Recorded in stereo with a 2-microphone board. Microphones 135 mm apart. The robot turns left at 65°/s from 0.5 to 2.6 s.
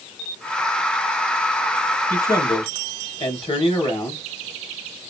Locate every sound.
2.1 s a man speaking: 165° left, 3.5 m; by 4.2 s 130° left, 3.5 m